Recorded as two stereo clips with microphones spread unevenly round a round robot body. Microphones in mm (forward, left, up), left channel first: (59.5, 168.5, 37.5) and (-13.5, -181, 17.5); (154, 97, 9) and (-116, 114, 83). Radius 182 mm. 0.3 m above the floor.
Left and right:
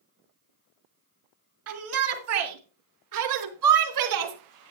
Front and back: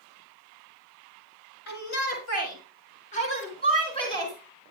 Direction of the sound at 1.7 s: 55° right.